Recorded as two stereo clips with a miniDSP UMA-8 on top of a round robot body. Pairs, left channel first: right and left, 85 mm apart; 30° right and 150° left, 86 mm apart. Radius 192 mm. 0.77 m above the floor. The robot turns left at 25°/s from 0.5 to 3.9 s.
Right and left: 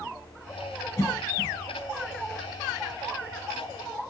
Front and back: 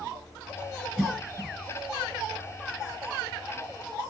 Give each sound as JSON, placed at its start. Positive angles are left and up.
{"t": 1.0, "sound": "a cough", "azimuth_deg": -125, "distance_m": 1.3}